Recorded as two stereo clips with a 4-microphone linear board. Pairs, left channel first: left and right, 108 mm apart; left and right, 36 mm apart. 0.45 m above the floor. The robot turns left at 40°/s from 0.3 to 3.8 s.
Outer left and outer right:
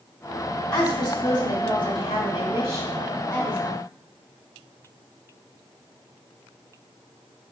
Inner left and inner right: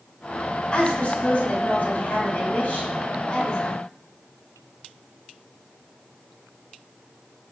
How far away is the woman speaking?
About 1.7 m.